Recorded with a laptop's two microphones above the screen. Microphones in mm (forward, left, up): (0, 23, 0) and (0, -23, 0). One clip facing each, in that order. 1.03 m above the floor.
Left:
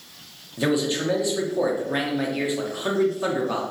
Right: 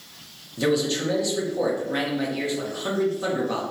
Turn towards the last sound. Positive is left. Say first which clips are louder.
# even
turn(degrees=15)  # may be behind; listen again after turning